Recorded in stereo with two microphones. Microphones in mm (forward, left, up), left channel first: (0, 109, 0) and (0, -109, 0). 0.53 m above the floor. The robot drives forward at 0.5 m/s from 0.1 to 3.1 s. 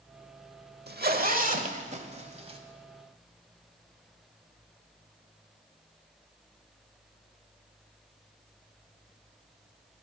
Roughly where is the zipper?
Right.